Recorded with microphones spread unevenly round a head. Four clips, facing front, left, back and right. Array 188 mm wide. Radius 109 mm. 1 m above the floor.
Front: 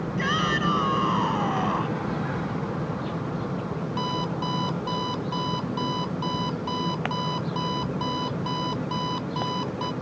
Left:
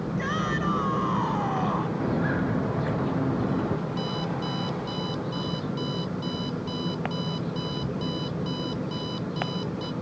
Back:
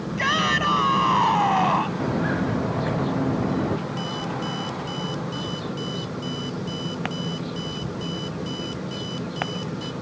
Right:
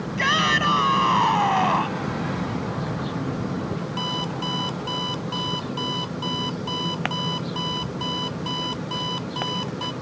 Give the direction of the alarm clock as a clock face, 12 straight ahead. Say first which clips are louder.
Right 1 dB, front 1 dB; 2 o'clock.